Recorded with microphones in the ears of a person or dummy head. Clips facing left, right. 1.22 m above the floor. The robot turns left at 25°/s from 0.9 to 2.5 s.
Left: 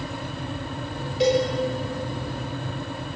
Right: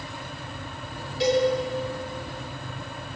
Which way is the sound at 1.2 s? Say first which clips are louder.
Left 2 dB; 25° left (ahead or behind).